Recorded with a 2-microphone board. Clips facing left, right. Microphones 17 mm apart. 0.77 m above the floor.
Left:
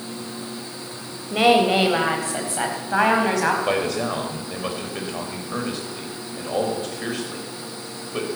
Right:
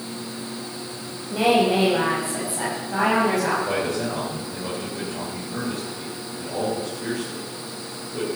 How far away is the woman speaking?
About 3.5 m.